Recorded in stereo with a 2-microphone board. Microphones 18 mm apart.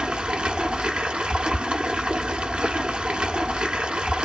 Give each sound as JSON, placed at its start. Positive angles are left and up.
{"t": 0.0, "sound": "running water", "side_deg": -65, "distance_m": 0.8}